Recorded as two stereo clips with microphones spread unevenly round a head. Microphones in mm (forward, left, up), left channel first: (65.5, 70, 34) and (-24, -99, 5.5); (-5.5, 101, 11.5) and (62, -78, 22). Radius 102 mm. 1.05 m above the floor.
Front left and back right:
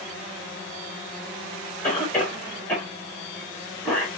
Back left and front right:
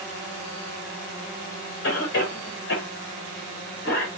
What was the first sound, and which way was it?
A cough, 140° left.